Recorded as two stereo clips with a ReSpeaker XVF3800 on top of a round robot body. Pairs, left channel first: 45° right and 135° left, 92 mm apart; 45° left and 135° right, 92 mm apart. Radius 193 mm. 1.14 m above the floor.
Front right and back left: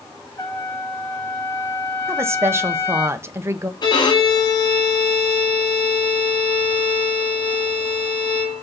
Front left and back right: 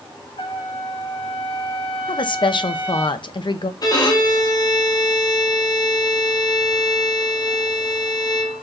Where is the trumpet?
15° left, 4 m.